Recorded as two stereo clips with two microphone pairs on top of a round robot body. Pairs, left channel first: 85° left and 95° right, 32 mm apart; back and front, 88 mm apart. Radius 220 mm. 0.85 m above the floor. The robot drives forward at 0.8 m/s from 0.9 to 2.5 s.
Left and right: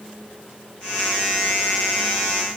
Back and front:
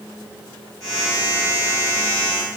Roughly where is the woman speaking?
No woman speaking in this recording.